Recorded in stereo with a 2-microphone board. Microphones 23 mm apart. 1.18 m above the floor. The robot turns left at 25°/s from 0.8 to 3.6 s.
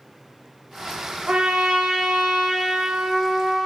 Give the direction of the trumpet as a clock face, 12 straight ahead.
3 o'clock.